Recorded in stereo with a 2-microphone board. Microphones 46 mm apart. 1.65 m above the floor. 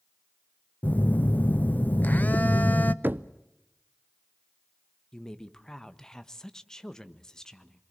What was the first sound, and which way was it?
A phone buzzing, 35° left (ahead or behind).